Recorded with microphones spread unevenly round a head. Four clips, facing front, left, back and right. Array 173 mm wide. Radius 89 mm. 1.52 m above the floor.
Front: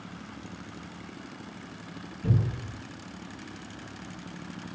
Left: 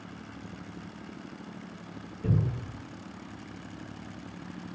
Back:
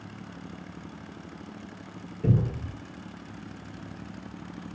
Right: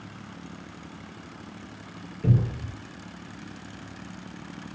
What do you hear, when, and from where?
2.2 s a cupboard door: 160° right, 3.5 m